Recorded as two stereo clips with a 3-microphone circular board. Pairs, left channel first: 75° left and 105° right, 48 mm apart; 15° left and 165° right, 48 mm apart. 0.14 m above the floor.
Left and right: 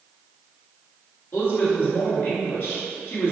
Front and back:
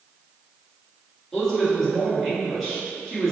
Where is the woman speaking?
100° left, 1.8 m.